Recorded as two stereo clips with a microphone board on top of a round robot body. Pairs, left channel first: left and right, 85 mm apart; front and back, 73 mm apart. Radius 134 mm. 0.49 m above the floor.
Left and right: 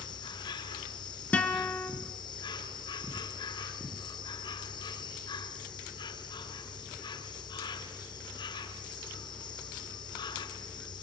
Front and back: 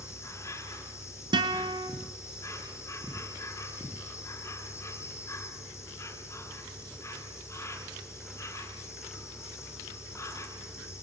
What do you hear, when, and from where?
0.0 s an insect: 55° left, 3 m
1.3 s a guitar: 165° left, 1.5 m